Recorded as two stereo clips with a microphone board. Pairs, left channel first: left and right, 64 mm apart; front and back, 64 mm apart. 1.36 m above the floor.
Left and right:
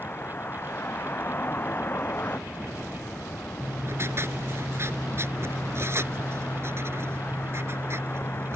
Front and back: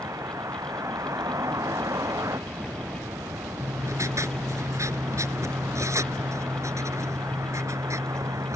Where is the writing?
140° right.